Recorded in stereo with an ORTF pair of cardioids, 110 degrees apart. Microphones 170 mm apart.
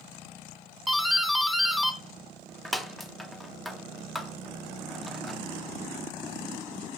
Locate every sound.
0.9 s a doorbell: straight ahead, 0.7 m